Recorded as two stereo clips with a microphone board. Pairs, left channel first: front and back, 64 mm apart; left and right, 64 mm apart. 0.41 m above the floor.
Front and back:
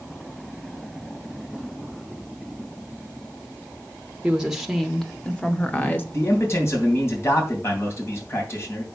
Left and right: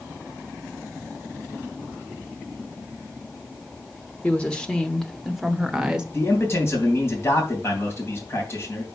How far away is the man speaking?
About 3 m.